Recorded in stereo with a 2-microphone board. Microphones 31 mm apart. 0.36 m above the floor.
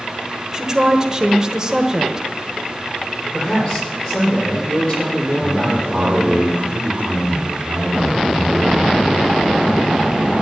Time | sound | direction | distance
0.5 | a woman speaking | 20° right (ahead or behind) | 1.3 m
3.3 | a man speaking | 25° left (ahead or behind) | 10 m
5.4 | a man speaking | 65° right (ahead or behind) | 4.5 m